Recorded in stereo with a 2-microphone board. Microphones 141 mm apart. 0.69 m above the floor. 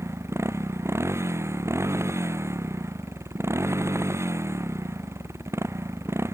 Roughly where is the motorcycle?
Centre.